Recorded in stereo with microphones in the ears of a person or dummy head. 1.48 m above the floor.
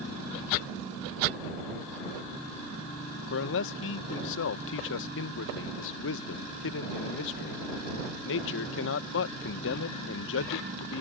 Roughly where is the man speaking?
Left.